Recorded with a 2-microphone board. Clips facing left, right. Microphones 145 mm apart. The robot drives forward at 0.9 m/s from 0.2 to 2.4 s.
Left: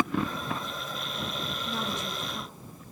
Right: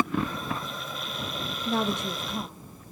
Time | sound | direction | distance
1.6 | a woman speaking | 75° right (ahead or behind) | 1.7 m